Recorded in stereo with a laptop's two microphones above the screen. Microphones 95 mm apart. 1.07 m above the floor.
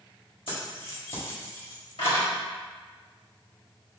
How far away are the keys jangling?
About 1.3 m.